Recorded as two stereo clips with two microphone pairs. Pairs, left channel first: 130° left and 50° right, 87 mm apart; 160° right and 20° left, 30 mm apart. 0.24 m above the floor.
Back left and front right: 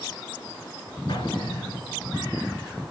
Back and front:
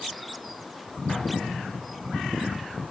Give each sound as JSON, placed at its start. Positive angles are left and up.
{"t": 1.1, "sound": "an explosion", "azimuth_deg": 115, "distance_m": 3.5}